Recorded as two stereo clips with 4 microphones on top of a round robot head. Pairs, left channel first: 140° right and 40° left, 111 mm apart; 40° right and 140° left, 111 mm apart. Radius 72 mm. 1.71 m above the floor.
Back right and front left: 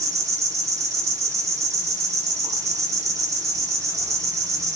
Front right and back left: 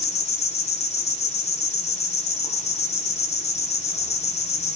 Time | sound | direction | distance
0.0 | an insect | 20° right | 3 m